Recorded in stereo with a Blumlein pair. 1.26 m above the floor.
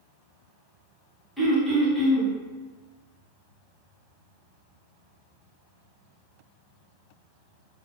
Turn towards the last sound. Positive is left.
turn(degrees=0)